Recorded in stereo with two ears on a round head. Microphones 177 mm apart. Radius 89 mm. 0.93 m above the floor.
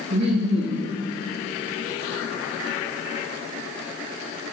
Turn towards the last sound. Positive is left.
turn(degrees=-55)  # may be behind; listen again after turning